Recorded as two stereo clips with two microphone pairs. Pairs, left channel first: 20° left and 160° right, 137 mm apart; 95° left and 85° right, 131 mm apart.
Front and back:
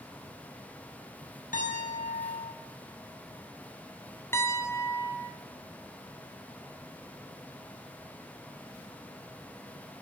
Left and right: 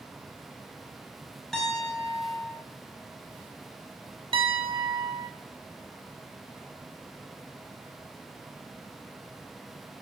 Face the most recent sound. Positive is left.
turn(degrees=-50)